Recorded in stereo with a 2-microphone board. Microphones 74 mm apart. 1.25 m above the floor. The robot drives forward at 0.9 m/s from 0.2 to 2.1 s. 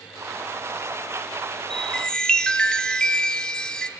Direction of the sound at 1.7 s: 10° left (ahead or behind).